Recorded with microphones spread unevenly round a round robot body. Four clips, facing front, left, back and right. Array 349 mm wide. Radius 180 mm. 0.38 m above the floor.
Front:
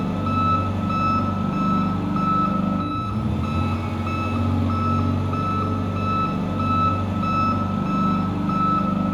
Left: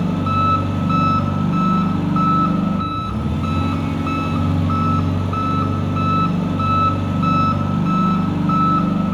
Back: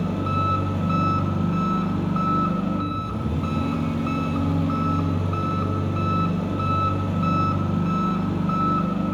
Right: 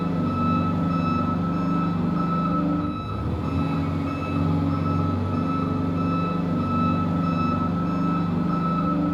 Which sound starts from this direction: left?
An engine running, at 0.0 s.